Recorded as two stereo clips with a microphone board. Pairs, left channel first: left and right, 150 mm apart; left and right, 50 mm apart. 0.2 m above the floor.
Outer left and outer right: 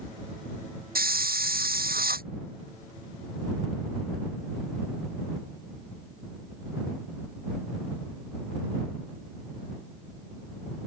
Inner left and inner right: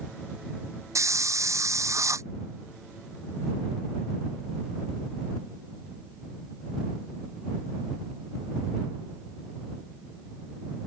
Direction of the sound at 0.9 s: 85° right.